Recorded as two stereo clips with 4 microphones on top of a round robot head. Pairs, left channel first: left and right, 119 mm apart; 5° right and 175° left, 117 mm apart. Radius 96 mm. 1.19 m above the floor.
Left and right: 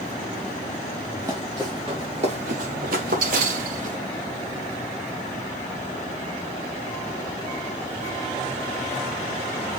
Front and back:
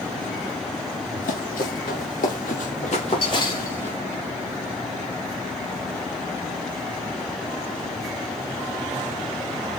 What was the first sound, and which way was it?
Running footsteps, 20° right.